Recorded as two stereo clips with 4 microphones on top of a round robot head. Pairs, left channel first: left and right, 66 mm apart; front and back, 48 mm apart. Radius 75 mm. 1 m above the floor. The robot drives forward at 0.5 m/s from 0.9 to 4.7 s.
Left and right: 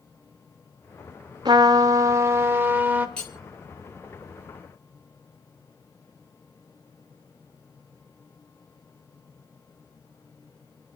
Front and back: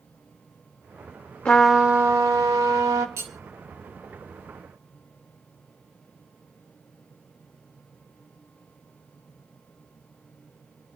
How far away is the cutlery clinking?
About 2.5 m.